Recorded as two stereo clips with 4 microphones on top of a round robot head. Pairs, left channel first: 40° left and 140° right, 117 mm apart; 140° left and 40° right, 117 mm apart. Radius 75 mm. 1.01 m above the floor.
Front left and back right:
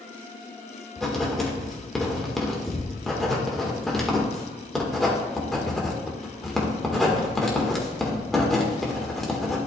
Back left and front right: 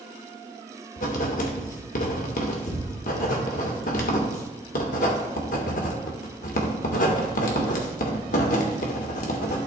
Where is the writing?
125° left, 1.6 m.